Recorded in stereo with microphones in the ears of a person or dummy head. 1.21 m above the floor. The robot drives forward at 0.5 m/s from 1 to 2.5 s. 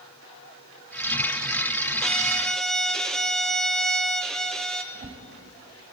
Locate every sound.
2.0 s a violin: 5° left (ahead or behind), 0.9 m; by 4.8 s centre (ahead or behind), 1.1 m
4.9 s a whoosh: 45° right (ahead or behind), 4.5 m